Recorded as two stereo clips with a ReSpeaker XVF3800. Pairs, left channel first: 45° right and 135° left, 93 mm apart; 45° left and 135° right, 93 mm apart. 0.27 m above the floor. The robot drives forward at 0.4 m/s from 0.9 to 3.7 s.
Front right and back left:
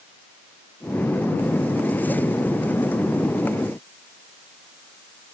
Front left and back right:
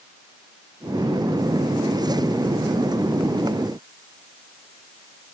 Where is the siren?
No siren in this recording.